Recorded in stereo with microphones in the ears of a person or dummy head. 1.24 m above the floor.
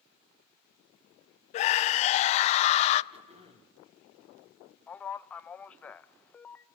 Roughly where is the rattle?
No rattle in this recording.